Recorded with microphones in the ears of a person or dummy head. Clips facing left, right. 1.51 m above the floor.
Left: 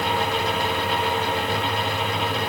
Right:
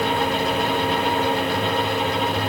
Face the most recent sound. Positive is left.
No sound to turn to.